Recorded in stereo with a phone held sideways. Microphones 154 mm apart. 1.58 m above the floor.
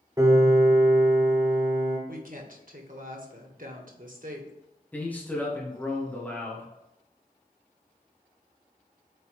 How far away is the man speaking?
About 1.5 m.